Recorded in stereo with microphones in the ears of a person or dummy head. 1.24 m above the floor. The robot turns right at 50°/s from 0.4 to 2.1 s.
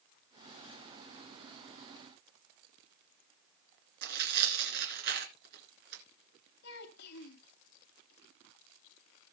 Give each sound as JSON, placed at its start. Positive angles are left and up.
{"t": 4.0, "sound": "tearing paper", "side_deg": -60, "distance_m": 2.5}
{"t": 6.6, "sound": "a child speaking", "side_deg": 65, "distance_m": 2.0}